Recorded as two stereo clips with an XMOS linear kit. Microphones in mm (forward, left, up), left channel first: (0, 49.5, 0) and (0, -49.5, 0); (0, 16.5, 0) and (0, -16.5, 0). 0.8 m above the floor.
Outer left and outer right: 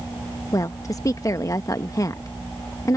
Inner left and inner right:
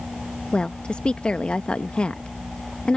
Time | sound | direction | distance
0.5 | a woman speaking | 35° left (ahead or behind) | ?